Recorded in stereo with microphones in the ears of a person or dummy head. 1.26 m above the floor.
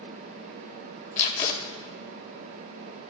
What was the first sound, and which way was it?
Tape being pulled, 35° left (ahead or behind).